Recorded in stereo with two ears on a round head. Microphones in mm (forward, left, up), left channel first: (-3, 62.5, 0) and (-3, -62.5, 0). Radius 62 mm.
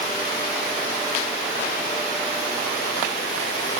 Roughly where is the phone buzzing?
No phone buzzing in this recording.